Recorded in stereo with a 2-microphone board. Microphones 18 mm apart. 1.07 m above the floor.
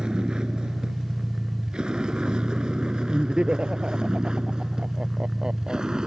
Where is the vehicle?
60° right (ahead or behind); by 6.1 s 45° right (ahead or behind).